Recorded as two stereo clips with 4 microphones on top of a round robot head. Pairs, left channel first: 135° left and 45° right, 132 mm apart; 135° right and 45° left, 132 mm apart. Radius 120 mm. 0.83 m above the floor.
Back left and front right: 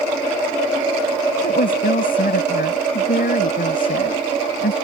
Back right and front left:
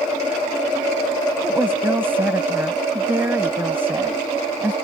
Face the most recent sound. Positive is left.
turn(degrees=120)